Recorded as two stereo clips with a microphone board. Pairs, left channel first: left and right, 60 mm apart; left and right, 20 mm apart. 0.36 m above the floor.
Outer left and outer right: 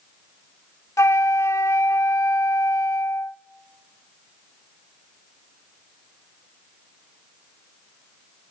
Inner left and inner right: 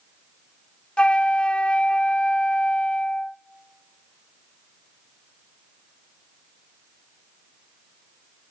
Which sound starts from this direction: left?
A flute, at 1.0 s.